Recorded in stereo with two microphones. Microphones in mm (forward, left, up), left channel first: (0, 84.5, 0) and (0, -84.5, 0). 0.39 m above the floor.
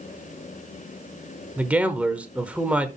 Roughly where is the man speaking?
Centre.